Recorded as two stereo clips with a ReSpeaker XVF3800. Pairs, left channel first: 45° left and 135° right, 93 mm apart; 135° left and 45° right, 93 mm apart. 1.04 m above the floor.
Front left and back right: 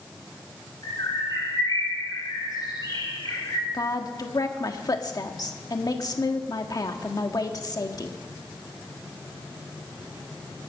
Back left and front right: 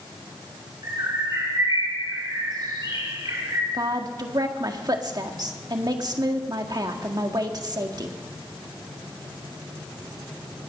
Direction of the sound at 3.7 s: Straight ahead.